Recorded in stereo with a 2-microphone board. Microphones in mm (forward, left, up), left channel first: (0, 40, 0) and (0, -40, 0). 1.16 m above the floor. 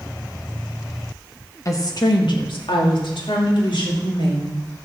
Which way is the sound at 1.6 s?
40° left (ahead or behind).